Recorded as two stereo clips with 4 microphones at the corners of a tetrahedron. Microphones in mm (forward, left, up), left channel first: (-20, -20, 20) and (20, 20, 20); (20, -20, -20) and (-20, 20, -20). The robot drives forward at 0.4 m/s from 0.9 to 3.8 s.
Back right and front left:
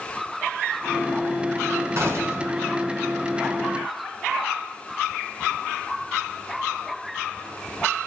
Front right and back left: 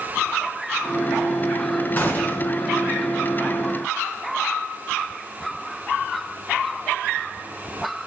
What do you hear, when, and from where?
2.0 s a gunshot: 10° left, 4 m; by 2.5 s 15° left, 3.5 m